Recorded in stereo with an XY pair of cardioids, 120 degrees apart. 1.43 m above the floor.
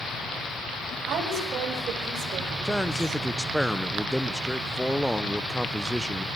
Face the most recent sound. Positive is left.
turn(degrees=0)